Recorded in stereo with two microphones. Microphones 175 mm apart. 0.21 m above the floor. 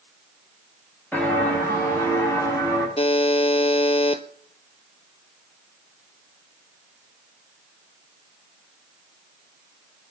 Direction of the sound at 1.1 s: 10° left (ahead or behind).